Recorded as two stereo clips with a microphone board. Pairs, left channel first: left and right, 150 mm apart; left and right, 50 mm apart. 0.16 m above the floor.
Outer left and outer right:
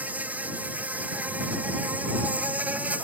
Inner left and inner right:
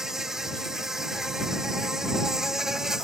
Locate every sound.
0.0 s an insect: 10° right (ahead or behind)